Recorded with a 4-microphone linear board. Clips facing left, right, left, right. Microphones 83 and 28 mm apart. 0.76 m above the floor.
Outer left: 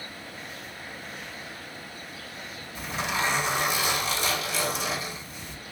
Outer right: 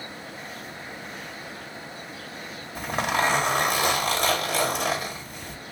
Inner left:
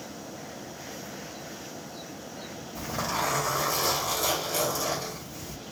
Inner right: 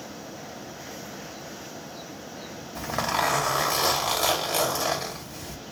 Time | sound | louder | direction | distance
2.8 | a zipper | outer right 5 dB, inner right 4 dB | 55° right (ahead or behind) | 1.8 m